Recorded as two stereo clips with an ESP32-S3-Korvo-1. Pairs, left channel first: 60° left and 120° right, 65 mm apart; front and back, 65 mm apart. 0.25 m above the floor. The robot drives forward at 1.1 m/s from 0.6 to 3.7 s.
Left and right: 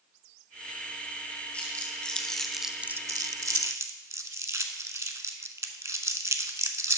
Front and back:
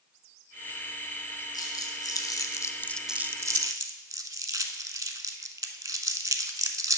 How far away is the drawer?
No drawer in this recording.